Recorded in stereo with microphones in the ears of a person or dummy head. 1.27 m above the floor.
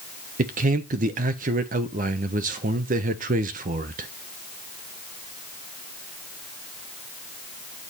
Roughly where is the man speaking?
Right.